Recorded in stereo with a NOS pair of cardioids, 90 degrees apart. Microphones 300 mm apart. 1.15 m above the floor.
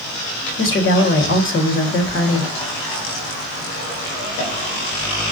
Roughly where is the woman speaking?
Ahead left.